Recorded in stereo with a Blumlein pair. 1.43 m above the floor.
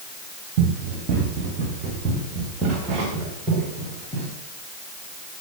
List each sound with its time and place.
0.6 s running footsteps: 40° right, 7.5 m; by 4.3 s 20° right, 10.5 m